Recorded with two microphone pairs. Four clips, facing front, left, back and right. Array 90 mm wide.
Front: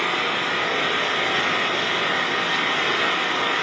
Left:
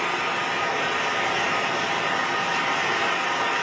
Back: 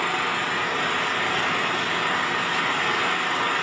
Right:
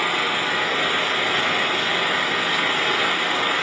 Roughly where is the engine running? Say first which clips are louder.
Right 2 dB, front 1 dB; ahead right.